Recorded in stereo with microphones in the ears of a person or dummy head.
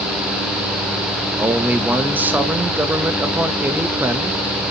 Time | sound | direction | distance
1.4 | a man speaking | 5° right (ahead or behind) | 0.8 m